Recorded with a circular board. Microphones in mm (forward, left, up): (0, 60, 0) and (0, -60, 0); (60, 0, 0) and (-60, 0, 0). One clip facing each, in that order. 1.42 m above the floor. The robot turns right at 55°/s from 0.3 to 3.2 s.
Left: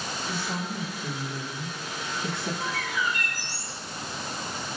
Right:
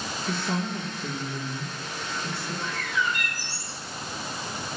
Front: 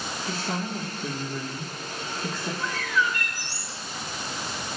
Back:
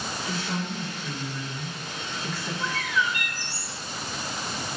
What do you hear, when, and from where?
0.3 s a woman speaking: 65° right, 1.4 m; by 2.5 s 55° left, 1.4 m
2.6 s a bird: 85° left, 1.7 m; by 3.8 s 120° left, 1.7 m